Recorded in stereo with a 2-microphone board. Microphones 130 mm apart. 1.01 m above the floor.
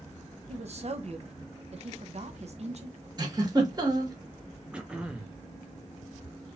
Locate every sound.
0.5 s a woman speaking: 55° right (ahead or behind), 0.7 m
3.2 s a giggle: 30° right (ahead or behind), 1.2 m
4.7 s throat clearing: 10° right (ahead or behind), 0.6 m